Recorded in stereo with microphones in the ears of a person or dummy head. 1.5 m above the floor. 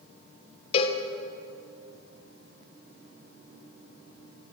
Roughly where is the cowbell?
Left.